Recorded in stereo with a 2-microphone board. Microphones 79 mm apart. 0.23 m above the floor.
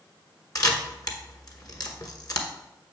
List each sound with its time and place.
0.6 s a camera shutter: 50° left (ahead or behind), 1.1 m